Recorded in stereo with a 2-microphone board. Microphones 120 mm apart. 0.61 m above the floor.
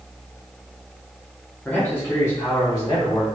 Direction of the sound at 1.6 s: 10° left (ahead or behind).